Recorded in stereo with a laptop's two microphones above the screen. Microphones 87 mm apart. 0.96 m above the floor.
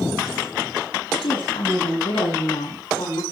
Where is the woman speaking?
80° left, 8 m; by 3.2 s 85° left, 6 m.